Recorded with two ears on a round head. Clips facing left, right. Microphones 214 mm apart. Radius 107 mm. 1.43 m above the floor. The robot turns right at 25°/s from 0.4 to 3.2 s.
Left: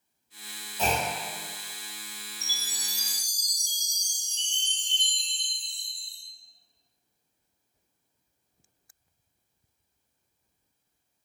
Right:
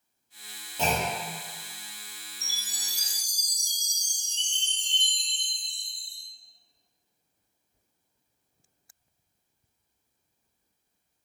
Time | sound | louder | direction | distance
0.8 | a clunk | even | 25° right (ahead or behind) | 0.8 m
2.4 | a chime | left 4 dB | 30° left (ahead or behind) | 0.8 m